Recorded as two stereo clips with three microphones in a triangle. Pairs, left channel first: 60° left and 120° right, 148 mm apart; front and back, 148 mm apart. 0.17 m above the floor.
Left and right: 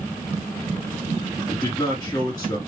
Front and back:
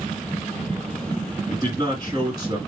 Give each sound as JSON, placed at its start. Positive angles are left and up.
{"t": 1.5, "sound": "a man speaking", "azimuth_deg": 120, "distance_m": 2.0}